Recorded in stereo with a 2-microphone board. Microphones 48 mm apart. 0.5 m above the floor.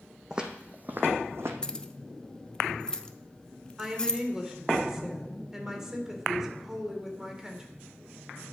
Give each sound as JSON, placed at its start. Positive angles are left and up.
{"t": 0.3, "sound": "footsteps", "side_deg": -15, "distance_m": 1.0}
{"t": 1.6, "sound": "keys jangling", "side_deg": 15, "distance_m": 0.5}
{"t": 3.8, "sound": "a woman speaking", "side_deg": -10, "distance_m": 1.7}